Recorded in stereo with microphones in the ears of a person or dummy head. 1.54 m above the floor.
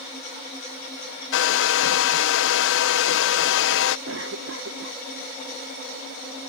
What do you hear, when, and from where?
1.3 s a hair dryer: 75° left (ahead or behind)
4.1 s a cough: 80° right